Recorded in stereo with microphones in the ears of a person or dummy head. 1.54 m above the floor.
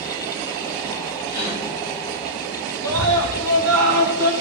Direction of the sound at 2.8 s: 80° right.